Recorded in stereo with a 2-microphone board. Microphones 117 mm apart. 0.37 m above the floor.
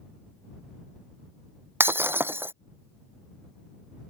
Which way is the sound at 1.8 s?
20° right (ahead or behind).